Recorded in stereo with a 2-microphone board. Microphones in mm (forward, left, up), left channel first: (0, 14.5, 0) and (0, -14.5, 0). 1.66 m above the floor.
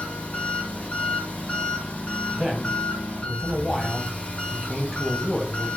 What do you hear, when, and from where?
0.0 s an engine running: 50° left (ahead or behind), 1.0 m
2.3 s a man speaking: 5° right (ahead or behind), 1.2 m